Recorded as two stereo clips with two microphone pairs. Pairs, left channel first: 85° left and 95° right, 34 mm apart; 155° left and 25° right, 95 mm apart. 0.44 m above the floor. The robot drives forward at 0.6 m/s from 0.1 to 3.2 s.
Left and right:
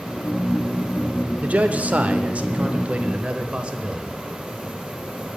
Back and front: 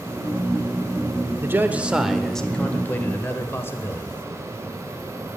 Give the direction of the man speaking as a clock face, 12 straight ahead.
3 o'clock.